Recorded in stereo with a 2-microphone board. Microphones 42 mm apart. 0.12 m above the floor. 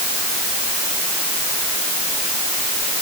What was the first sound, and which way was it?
Only background noise.